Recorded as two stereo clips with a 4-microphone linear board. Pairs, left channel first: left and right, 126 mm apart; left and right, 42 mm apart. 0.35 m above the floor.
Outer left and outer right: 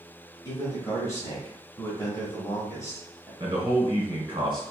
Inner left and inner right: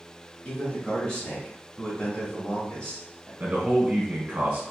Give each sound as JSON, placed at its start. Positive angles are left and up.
{"t": 0.5, "sound": "a man speaking", "side_deg": 25, "distance_m": 1.4}
{"t": 3.4, "sound": "a man speaking", "side_deg": -40, "distance_m": 1.5}